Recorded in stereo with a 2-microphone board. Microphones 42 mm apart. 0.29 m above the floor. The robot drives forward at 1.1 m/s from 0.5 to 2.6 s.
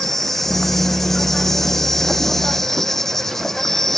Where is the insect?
5° left (ahead or behind); by 4.0 s 10° left (ahead or behind).